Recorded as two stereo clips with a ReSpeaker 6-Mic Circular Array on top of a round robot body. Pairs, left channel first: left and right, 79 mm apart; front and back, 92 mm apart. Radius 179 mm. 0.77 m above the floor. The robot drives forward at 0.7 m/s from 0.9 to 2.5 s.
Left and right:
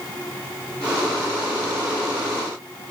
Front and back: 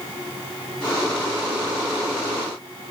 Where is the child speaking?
I don't hear a child speaking.